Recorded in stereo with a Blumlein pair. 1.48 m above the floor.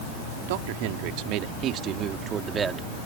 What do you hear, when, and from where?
0.5 s a man speaking: 50° right; by 2.9 s 15° right